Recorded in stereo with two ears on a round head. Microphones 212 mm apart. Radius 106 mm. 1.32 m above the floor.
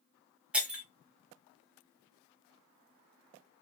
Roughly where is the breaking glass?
Centre.